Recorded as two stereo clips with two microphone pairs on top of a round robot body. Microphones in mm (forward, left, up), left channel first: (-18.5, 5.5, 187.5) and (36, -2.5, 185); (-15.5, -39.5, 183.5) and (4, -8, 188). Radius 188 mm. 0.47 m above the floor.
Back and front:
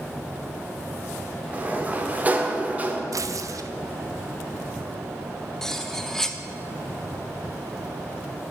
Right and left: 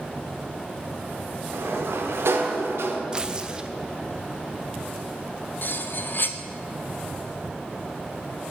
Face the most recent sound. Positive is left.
turn(degrees=-105)